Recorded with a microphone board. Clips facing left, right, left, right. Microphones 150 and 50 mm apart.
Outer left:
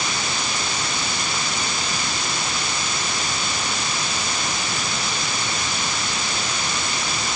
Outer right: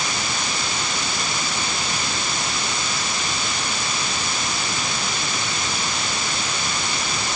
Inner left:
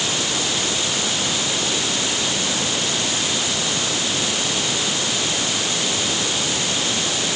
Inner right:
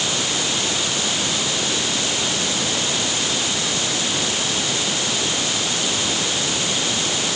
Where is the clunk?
I don't hear a clunk.